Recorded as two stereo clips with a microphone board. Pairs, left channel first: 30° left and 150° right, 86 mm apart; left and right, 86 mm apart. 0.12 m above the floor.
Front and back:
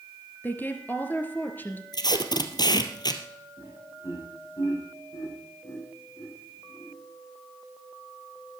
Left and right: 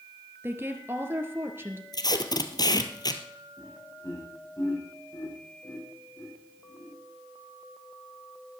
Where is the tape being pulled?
60° left, 1.4 m.